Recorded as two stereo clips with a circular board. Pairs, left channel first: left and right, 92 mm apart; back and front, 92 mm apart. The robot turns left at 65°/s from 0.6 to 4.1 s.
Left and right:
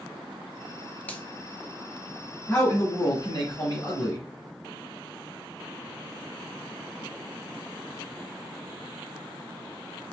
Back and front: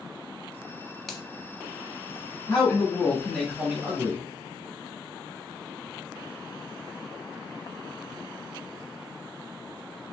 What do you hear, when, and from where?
1.1 s a finger snap: 100° left, 0.8 m; by 1.2 s 90° left, 0.8 m
2.5 s a man speaking: 150° left, 1.8 m; by 4.2 s 45° left, 1.8 m